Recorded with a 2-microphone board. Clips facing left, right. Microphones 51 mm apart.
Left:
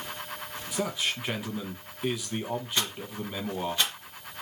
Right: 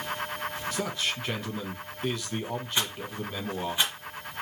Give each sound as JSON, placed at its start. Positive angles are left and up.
{"t": 0.7, "sound": "a man speaking", "side_deg": 10, "distance_m": 1.1}
{"t": 2.8, "sound": "a rattle", "side_deg": -15, "distance_m": 2.5}